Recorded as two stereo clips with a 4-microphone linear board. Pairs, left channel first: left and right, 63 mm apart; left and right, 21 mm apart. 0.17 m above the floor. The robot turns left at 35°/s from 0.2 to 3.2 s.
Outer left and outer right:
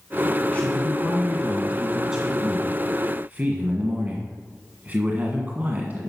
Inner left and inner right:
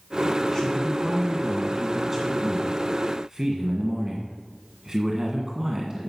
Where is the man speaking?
40° left, 1.5 m; by 6.1 s 50° right, 1.5 m.